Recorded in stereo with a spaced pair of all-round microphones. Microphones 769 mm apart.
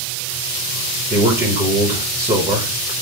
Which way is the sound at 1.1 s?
5° right (ahead or behind).